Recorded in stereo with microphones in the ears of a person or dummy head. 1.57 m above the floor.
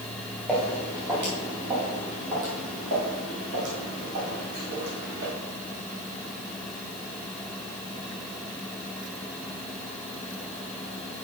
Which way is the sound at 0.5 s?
5° right (ahead or behind).